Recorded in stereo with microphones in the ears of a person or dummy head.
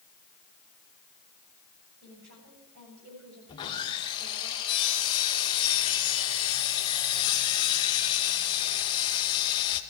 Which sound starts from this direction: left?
Sawing, at 3.5 s.